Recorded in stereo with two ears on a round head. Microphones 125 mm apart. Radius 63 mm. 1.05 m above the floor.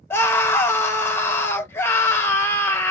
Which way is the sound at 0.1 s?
15° left (ahead or behind).